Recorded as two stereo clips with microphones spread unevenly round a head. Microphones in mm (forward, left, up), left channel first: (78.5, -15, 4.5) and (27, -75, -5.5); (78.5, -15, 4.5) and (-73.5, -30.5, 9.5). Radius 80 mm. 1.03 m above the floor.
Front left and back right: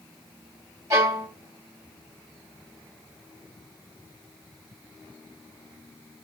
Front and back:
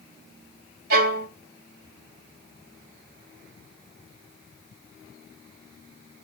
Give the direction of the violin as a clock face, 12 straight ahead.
7 o'clock.